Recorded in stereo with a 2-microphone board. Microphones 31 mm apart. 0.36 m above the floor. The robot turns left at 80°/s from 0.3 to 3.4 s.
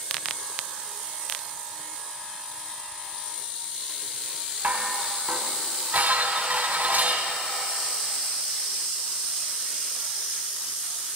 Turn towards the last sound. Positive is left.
turn(degrees=-60)  # may be behind; listen again after turning